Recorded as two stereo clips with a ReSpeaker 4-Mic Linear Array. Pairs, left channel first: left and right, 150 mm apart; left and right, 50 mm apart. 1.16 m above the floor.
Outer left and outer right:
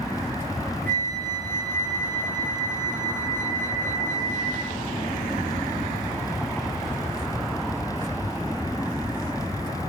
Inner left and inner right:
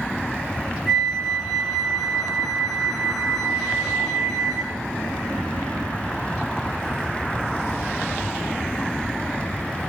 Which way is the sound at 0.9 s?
10° left (ahead or behind).